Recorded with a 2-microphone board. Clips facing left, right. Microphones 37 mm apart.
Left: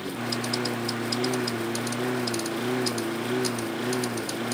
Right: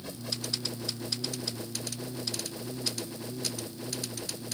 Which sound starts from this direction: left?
A lawn mower, at 0.0 s.